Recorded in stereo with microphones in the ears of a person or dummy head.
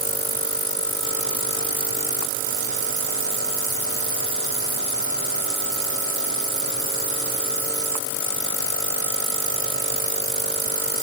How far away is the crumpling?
No crumpling in this recording.